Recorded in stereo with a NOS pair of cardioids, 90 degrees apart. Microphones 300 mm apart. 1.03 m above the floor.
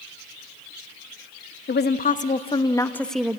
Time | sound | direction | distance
1.7 | a woman speaking | 35° left | 1.3 m